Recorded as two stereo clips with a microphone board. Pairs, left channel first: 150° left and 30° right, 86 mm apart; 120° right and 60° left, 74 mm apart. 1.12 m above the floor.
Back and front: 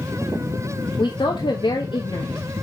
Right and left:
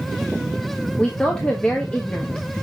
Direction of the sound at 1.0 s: 165° left.